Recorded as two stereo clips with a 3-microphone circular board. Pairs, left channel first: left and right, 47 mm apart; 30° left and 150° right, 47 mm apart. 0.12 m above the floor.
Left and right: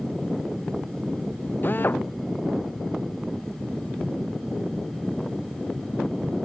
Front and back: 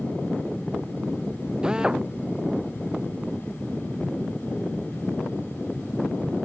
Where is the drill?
135° left.